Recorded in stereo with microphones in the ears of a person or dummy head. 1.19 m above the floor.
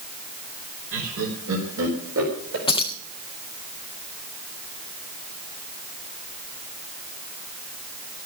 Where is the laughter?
70° right (ahead or behind), 3.5 m; by 2.6 s 80° right, 4.5 m.